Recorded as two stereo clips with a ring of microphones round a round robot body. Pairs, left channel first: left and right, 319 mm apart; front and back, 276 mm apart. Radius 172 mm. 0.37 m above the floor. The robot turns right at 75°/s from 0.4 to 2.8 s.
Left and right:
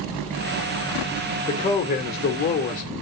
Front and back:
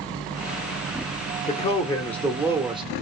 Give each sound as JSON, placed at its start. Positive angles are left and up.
{"t": 1.5, "sound": "a man speaking", "azimuth_deg": 30, "distance_m": 0.9}